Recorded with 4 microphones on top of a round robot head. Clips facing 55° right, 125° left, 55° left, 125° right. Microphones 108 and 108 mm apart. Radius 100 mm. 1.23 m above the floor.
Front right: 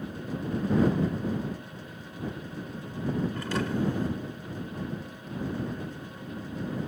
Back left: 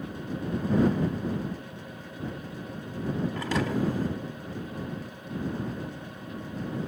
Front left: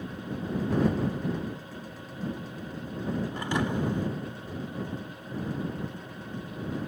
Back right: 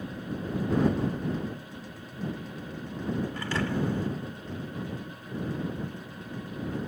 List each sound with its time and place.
3.3 s a thud: 120° left